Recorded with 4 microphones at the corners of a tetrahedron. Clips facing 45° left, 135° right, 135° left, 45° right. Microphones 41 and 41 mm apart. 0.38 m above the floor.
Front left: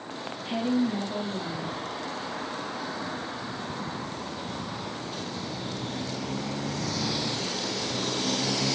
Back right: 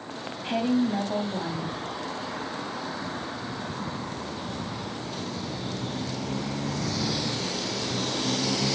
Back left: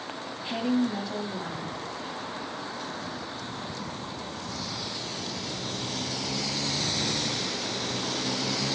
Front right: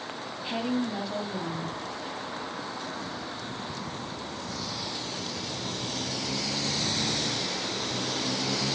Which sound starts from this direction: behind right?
A woman speaking, at 0.4 s.